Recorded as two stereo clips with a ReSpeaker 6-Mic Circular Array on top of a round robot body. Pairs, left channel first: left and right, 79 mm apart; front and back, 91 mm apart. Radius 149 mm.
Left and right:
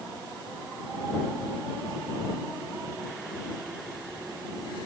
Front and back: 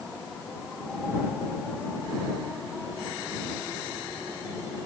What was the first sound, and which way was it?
Only background noise.